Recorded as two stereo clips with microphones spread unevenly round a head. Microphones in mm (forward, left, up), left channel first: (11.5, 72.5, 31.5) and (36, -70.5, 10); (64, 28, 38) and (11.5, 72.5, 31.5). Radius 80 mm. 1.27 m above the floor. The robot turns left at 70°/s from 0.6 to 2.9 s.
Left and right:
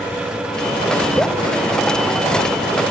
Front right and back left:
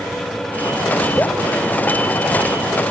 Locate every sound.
1.2 s dripping: 25° left, 0.7 m; by 1.4 s 10° left, 0.7 m